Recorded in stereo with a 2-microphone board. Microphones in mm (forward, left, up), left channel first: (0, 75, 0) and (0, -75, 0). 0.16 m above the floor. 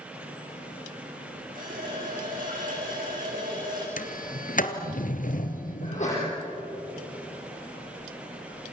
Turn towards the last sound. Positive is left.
turn(degrees=55)  # may be behind; listen again after turning